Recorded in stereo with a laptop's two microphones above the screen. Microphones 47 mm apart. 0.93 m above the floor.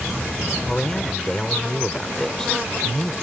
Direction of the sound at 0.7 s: 10° left (ahead or behind).